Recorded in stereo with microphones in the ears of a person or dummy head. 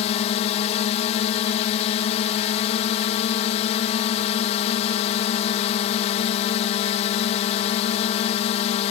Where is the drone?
40° left (ahead or behind).